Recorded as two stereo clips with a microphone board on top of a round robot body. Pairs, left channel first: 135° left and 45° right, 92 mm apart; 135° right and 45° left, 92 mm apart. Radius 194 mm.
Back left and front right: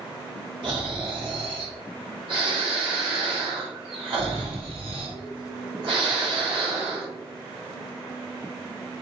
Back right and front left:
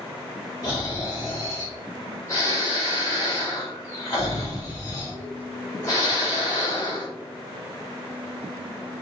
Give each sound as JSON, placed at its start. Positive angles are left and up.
{"t": 0.6, "sound": "snoring", "azimuth_deg": -75, "distance_m": 1.4}